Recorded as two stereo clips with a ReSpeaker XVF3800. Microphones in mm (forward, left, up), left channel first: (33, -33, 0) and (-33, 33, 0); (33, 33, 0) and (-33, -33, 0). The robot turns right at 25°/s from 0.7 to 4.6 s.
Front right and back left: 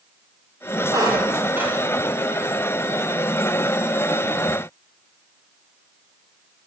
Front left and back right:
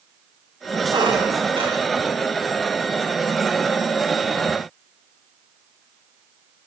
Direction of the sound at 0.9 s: 175° right.